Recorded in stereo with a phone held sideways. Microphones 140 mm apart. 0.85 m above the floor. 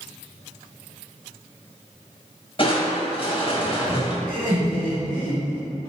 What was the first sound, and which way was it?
Crushing, 45° left (ahead or behind).